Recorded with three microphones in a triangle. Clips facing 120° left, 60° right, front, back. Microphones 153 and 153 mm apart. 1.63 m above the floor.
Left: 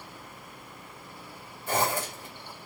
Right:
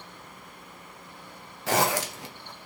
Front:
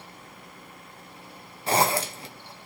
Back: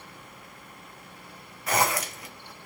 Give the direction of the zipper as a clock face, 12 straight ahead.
2 o'clock.